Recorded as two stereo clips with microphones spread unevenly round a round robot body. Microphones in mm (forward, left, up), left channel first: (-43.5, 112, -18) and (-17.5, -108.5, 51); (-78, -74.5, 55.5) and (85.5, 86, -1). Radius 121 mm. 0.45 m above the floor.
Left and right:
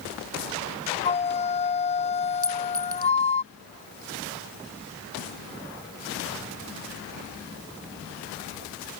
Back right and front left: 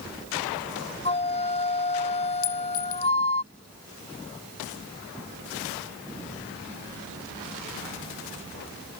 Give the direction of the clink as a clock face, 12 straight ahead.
6 o'clock.